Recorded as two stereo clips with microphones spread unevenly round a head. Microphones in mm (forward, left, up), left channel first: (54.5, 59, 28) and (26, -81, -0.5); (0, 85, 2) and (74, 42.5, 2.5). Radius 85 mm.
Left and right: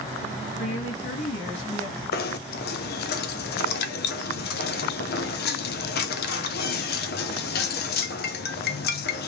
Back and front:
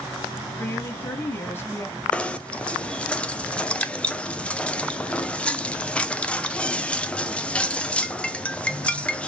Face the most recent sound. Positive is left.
turn(degrees=70)